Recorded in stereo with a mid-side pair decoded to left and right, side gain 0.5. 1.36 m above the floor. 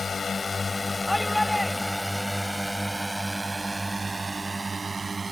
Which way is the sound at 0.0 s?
35° left.